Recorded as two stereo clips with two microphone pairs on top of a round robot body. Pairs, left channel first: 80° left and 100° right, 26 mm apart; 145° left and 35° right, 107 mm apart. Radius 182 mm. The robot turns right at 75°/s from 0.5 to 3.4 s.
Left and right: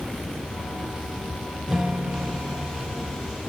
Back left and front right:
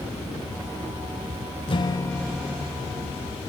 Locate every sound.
1.7 s a guitar: 175° right, 0.7 m; by 3.1 s 65° right, 0.7 m